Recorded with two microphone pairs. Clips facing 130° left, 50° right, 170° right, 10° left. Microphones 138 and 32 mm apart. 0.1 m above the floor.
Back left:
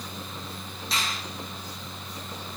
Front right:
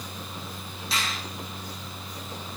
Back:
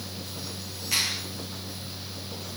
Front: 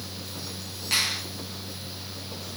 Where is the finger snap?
35° left, 6 m.